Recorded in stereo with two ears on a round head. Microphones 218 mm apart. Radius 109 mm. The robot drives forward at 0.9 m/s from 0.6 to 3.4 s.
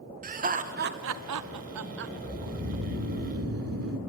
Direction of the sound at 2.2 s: 45° right (ahead or behind).